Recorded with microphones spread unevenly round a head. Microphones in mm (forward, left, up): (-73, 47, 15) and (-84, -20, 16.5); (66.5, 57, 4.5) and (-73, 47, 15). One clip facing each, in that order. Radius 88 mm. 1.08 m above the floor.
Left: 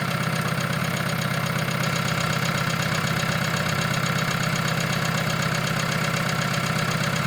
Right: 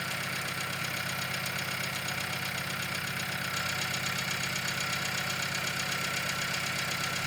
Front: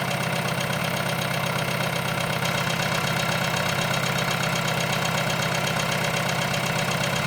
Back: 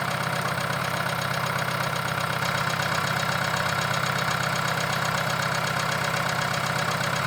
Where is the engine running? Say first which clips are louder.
Left 9 dB, front 2 dB; 70° left, 1.2 m.